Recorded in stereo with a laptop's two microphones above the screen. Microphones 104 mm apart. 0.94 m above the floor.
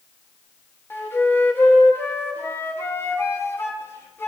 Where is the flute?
20° left (ahead or behind), 0.9 m.